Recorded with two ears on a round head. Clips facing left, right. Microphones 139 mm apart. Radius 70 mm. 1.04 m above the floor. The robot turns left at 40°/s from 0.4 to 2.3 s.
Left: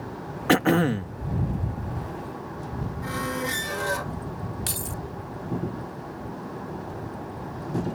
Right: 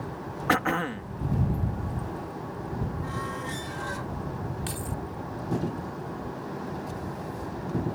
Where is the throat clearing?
35° left (ahead or behind); by 1.2 s 60° left (ahead or behind).